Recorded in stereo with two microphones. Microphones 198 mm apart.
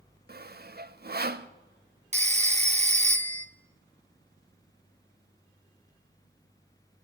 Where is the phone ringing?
35° right (ahead or behind), 0.6 m.